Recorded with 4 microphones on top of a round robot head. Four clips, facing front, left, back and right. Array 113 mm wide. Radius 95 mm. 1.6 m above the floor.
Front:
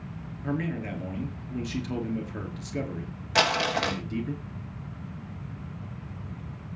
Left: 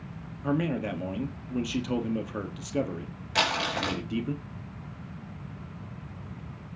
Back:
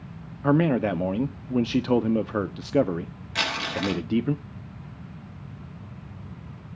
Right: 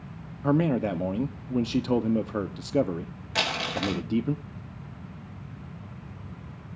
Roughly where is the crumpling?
Ahead.